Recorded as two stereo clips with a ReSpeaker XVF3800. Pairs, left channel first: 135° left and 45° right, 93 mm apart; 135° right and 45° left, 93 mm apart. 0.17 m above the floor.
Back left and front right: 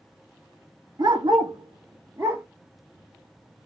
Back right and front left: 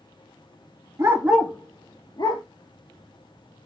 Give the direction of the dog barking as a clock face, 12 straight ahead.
12 o'clock.